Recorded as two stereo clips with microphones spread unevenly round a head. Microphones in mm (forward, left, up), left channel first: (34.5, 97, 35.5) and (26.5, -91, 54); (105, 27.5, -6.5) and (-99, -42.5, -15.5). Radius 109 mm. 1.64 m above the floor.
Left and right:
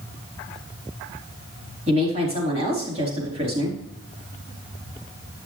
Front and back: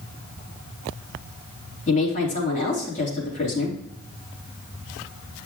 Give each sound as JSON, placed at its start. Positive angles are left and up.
{"t": 1.9, "sound": "a woman speaking", "azimuth_deg": -35, "distance_m": 4.0}